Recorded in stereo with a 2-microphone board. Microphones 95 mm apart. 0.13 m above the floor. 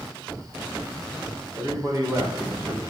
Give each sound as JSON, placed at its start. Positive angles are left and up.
{"t": 1.6, "sound": "a man speaking", "side_deg": -30, "distance_m": 10.0}